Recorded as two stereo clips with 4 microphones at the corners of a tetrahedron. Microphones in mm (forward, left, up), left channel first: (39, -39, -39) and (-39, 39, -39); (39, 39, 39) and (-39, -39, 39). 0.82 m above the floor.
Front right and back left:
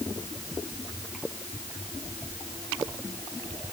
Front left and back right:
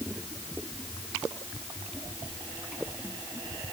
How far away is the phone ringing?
No phone ringing in this recording.